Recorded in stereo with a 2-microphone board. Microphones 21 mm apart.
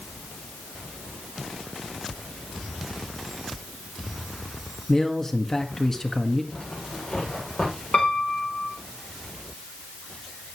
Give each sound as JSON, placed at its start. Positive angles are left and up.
{"t": 4.9, "sound": "a man speaking", "side_deg": 15, "distance_m": 1.4}
{"t": 6.5, "sound": "a zipper", "side_deg": 75, "distance_m": 9.5}
{"t": 7.9, "sound": "a piano", "side_deg": 65, "distance_m": 3.5}